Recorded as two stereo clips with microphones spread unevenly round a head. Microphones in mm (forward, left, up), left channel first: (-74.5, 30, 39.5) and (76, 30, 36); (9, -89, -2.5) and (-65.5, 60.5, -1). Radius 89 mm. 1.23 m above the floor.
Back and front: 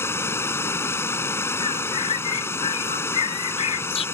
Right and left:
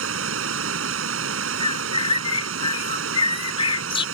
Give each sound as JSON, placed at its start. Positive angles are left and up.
{"t": 0.0, "sound": "running water", "azimuth_deg": 105}
{"t": 1.6, "sound": "a bird", "azimuth_deg": -120}